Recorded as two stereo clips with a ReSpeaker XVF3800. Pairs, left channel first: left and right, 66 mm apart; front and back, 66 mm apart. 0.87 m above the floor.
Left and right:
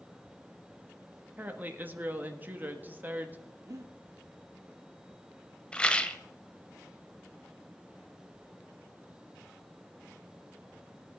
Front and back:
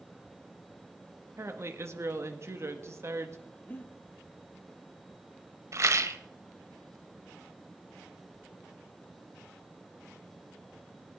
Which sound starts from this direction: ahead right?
Breathing, at 3.7 s.